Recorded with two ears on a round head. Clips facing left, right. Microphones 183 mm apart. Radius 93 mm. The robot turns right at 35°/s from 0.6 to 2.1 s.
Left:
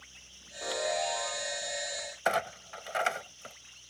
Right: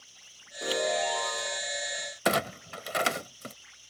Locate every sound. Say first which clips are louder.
0.6 s a chime: right 3 dB; 145° right; by 1.6 s 110° right
2.2 s a clunk: right 3 dB; 45° right (ahead or behind)